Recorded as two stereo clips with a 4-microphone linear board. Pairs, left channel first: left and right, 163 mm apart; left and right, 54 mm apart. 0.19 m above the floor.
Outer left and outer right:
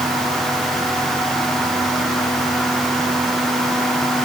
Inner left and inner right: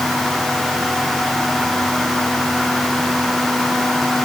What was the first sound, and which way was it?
Only background noise.